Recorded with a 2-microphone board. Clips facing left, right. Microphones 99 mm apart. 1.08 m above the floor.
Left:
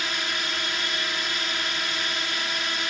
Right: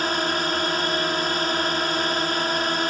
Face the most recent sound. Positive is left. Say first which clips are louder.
# right 8 dB
turn(degrees=-40)  # may be behind; listen again after turning